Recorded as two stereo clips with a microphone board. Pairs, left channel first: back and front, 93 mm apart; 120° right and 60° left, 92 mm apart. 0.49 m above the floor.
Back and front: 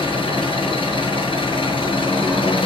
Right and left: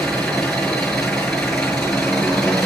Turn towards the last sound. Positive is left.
turn(degrees=155)